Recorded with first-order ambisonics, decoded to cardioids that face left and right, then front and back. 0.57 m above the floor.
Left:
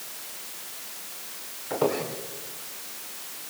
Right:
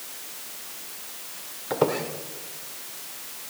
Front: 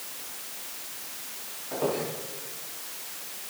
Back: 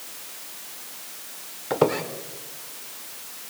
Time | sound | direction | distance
1.7 | a squeak | 160° right | 1.4 m